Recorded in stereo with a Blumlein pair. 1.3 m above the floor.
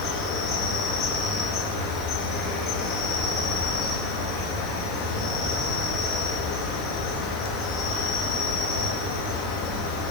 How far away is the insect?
About 3.5 m.